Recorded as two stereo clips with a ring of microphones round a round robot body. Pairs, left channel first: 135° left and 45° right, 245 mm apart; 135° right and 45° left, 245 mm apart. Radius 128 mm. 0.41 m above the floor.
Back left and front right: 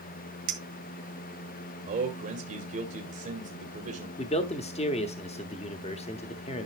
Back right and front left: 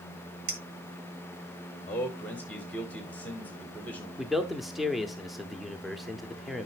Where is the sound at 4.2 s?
135° left, 0.8 m.